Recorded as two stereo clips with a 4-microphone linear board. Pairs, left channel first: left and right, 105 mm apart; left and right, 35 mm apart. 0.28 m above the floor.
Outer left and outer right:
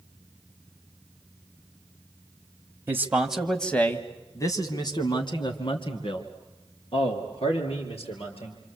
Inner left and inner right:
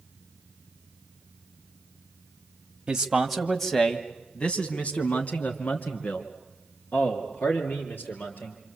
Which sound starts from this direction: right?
A man speaking, at 2.9 s.